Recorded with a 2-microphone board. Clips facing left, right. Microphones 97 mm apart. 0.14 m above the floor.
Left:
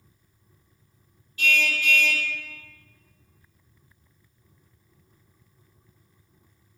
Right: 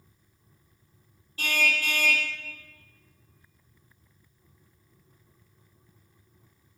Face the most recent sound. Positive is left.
turn(degrees=-35)  # may be behind; listen again after turning